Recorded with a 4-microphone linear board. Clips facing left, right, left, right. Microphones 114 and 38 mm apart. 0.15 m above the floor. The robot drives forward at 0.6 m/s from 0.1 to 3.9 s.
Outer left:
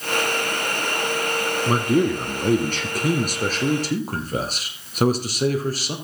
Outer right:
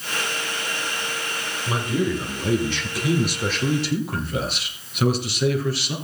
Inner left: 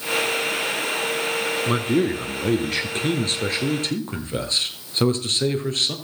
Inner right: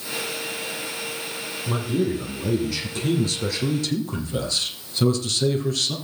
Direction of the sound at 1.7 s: 50° left (ahead or behind).